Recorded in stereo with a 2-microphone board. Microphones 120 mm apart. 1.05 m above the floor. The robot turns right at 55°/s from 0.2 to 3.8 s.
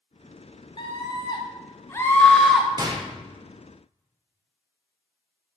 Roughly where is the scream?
Left.